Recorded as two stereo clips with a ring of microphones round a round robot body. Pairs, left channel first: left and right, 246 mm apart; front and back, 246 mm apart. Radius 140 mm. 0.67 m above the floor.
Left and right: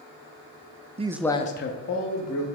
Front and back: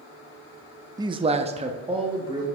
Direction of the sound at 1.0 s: 120° right.